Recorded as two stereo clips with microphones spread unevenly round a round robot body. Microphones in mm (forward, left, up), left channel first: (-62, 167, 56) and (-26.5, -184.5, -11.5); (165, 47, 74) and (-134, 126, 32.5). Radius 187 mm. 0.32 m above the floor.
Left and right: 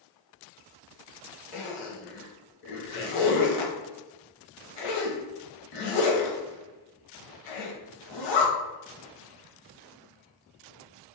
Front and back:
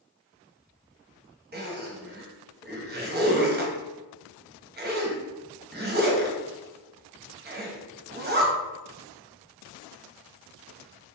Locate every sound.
1.5 s a zipper: 110° left, 0.9 m